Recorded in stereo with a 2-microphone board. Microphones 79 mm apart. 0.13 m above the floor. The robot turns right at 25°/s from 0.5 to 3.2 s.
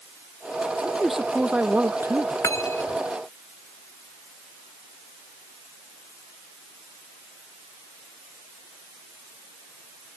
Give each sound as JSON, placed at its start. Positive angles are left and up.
{"t": 0.8, "sound": "a man speaking", "azimuth_deg": 175}
{"t": 2.4, "sound": "cutlery clinking", "side_deg": 40}